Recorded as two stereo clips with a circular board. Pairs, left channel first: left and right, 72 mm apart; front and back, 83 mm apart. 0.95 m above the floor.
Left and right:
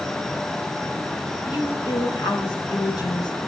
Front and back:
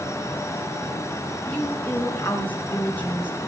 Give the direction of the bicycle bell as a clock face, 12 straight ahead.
No bicycle bell in this recording.